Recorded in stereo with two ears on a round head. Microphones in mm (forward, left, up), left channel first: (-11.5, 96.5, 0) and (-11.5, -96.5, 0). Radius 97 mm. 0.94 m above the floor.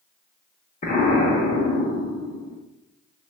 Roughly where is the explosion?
Left.